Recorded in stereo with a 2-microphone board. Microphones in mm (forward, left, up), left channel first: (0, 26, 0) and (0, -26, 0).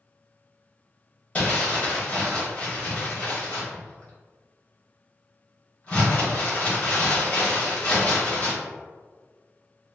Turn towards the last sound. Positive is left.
turn(degrees=25)  # may be behind; listen again after turning